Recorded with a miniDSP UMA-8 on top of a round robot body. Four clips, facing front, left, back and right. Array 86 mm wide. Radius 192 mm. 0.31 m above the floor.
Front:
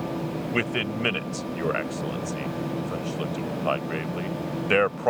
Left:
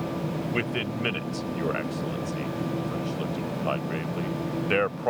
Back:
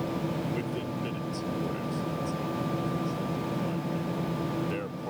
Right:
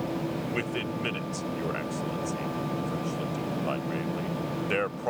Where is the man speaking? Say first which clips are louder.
Left 2 dB, front 5 dB; 10° left.